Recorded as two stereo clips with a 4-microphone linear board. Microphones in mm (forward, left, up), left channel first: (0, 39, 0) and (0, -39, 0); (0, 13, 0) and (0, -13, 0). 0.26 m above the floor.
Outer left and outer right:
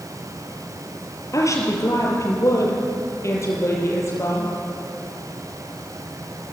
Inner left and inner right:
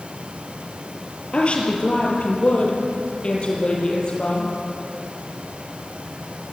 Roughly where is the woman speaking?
Left.